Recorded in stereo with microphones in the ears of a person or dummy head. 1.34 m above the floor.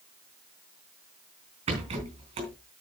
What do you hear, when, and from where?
1.7 s a rattle: 35° right (ahead or behind), 3.5 m